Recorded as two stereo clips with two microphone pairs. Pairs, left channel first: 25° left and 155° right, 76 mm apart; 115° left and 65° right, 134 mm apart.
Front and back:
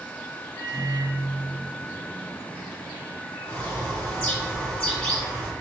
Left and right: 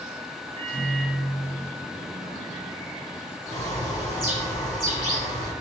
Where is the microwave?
60° left, 2 m.